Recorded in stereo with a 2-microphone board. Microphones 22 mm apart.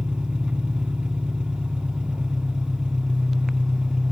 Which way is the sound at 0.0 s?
70° right (ahead or behind).